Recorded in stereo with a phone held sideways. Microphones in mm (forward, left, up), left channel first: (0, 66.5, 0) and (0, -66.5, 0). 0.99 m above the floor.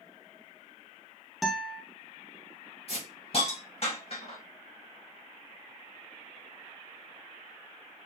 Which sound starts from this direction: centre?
A guitar, at 1.4 s.